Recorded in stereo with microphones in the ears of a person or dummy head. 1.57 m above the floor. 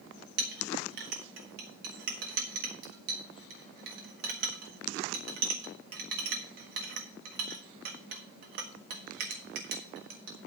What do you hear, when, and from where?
0.4 s a clink: 60° right (ahead or behind), 1.4 m